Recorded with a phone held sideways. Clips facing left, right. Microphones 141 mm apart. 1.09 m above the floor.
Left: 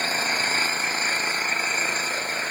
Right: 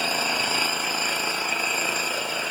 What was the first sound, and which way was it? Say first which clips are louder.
An engine running: right 1 dB; 10° right (ahead or behind).